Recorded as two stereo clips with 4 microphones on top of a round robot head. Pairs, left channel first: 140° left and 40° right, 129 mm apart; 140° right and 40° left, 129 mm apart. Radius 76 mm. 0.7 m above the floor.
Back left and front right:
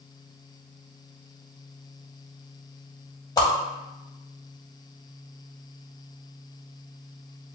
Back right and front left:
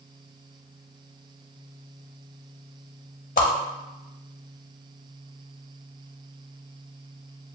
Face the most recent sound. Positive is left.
turn(degrees=-160)